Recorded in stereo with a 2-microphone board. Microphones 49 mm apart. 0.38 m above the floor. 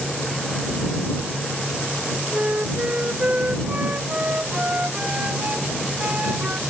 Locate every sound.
2.3 s a flute: 30° right (ahead or behind)